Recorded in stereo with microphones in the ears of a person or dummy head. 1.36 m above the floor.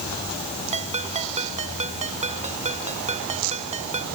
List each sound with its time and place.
0.7 s a ringtone: 35° right (ahead or behind)